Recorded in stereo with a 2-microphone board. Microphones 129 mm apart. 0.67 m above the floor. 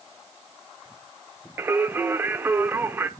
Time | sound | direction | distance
1.6 | singing | 20° right (ahead or behind) | 0.7 m